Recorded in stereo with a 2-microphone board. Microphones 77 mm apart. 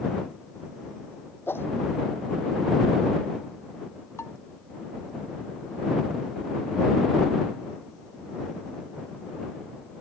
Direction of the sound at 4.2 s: 40° left (ahead or behind).